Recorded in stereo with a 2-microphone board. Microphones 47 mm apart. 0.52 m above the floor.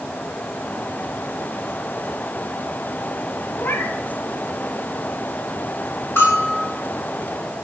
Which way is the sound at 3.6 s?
60° left (ahead or behind).